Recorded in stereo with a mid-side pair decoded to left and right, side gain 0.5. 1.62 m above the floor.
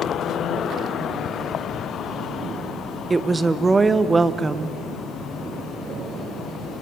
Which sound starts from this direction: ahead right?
A woman speaking, at 3.1 s.